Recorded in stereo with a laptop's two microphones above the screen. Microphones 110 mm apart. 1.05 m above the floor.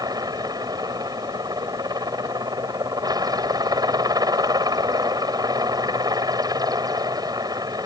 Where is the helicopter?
35° right (ahead or behind).